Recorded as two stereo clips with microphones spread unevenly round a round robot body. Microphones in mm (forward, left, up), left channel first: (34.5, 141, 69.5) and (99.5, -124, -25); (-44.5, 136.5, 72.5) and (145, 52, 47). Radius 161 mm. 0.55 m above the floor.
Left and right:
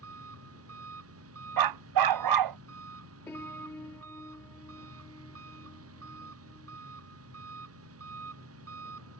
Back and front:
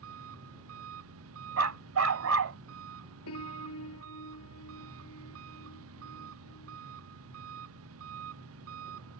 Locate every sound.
0.0 s an engine running: 40° right
1.6 s a dog barking: 70° right
3.3 s a piano: 175° right